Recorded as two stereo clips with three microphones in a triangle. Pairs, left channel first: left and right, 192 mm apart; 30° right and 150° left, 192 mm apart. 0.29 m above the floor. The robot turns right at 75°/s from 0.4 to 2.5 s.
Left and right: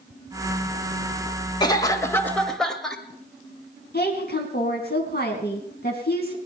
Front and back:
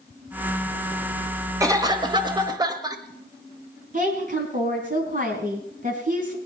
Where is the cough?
110° left, 1.3 m; by 3.0 s 175° left, 1.3 m.